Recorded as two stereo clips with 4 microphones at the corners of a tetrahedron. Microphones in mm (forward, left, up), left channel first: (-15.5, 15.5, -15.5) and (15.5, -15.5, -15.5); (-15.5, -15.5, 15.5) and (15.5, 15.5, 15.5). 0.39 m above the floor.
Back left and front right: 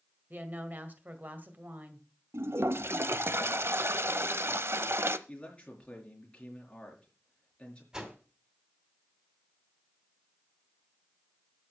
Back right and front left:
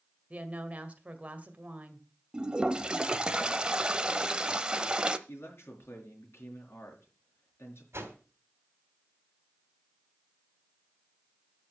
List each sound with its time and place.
0.3 s a woman speaking: 10° right, 1.8 m
2.3 s a toilet flushing: 25° right, 0.8 m
5.3 s a man speaking: 160° right, 5 m
7.9 s a whoosh: 25° left, 2.5 m